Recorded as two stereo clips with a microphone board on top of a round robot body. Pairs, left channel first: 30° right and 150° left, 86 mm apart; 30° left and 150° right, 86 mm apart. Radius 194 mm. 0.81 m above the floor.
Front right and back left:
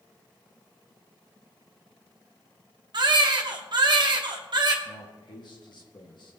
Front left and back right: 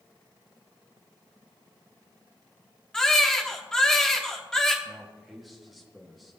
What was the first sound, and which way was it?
A baby crying, 115° left.